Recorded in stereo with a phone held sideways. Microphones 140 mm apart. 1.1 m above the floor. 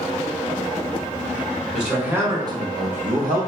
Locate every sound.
1.7 s a man speaking: 5° right (ahead or behind), 1.2 m; by 3.5 s 85° right, 0.8 m